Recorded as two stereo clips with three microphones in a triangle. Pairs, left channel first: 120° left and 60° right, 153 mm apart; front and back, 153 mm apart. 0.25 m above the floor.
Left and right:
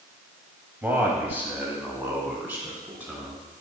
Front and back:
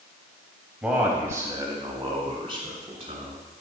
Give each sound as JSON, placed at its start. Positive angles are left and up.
{"t": 0.8, "sound": "a man speaking", "azimuth_deg": -115, "distance_m": 1.2}